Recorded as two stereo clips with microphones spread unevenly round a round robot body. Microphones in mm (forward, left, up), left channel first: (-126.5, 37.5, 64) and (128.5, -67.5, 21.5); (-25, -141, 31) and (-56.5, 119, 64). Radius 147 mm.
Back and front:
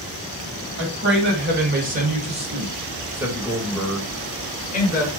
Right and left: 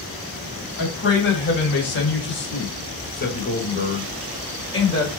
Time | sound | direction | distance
0.8 | a man speaking | 50° right | 2.5 m